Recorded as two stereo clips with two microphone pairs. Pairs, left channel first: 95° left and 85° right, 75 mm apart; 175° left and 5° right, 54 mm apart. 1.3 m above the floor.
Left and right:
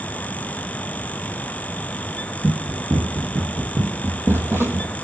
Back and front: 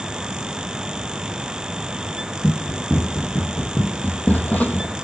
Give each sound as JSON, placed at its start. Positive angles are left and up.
{"t": 2.4, "sound": "running footsteps", "azimuth_deg": -125, "distance_m": 4.5}